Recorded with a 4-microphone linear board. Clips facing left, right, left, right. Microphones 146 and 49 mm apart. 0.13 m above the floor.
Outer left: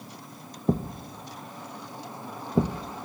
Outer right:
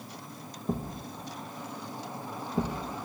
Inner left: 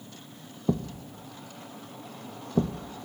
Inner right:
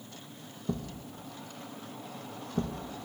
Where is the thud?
70° left (ahead or behind), 0.9 m.